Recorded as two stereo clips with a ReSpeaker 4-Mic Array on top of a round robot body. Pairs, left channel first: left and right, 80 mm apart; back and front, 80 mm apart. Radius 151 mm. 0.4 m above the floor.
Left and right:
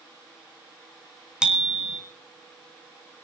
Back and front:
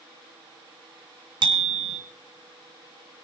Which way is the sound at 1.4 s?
10° right.